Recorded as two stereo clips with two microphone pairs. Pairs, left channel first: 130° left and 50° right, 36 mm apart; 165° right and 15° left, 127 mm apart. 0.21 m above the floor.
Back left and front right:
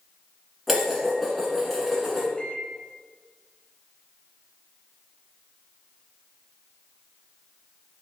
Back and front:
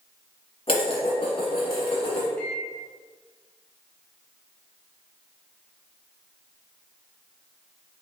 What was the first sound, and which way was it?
Dishes clattering, 140° right.